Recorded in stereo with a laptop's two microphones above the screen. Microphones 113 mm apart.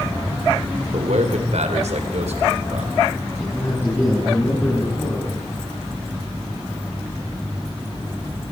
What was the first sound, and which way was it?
A man speaking, 85° right.